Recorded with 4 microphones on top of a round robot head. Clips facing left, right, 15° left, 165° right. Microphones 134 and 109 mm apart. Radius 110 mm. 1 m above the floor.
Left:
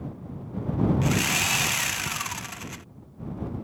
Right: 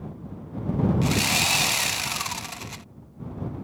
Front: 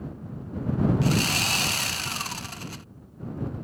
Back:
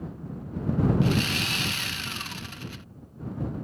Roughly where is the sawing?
Ahead right.